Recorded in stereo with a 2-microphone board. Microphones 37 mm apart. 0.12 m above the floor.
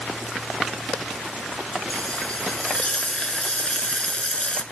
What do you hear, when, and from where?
1.9 s frying: 30° left (ahead or behind), 0.8 m